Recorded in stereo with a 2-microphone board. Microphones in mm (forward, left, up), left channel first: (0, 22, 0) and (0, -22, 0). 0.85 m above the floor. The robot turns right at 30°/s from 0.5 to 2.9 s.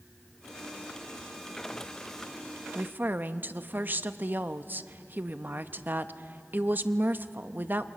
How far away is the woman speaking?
About 0.7 m.